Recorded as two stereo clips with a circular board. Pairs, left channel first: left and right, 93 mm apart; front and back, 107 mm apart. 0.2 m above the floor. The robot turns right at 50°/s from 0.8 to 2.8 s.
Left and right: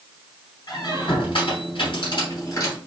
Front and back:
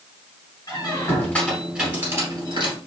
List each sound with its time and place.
0.7 s a squeak: 50° left, 3 m; by 2.8 s 150° left, 3 m